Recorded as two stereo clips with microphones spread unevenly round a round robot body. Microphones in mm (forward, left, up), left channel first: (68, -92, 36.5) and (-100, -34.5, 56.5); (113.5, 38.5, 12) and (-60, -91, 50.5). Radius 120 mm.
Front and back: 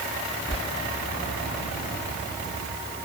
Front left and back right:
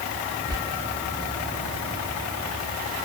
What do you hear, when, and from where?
0.5 s whispering: 140° left, 1.0 m